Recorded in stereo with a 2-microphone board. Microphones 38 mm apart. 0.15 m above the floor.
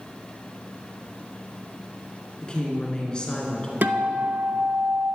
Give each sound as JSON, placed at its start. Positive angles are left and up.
{"t": 2.4, "sound": "a woman speaking", "side_deg": 25, "distance_m": 2.5}
{"t": 3.8, "sound": "a guitar", "side_deg": -55, "distance_m": 0.7}